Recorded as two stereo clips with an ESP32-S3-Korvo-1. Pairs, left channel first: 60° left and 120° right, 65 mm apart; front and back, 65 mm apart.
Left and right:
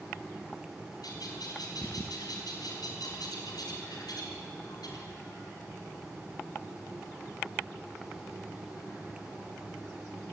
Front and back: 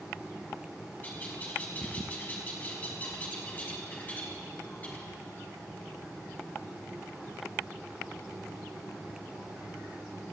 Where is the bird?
65° left, 5.5 m.